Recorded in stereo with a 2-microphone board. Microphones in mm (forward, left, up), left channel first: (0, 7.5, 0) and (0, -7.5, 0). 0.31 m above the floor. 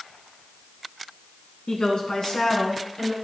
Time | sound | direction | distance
1.7 | a woman speaking | 65° left (ahead or behind) | 3 m